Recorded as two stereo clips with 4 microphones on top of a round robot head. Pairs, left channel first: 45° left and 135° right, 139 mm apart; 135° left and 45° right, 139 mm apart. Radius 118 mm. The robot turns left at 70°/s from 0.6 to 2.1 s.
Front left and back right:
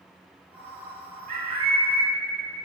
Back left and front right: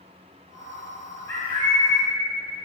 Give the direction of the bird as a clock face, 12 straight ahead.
5 o'clock.